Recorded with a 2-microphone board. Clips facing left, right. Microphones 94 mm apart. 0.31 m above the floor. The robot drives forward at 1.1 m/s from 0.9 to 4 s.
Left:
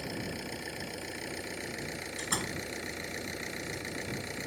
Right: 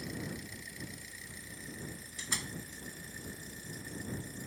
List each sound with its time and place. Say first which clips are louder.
0.0 s an engine running: left 4 dB; 65° left (ahead or behind); by 4.5 s 75° left (ahead or behind)
2.2 s a door slam: left 6 dB; 45° left (ahead or behind); by 2.6 s 35° left (ahead or behind)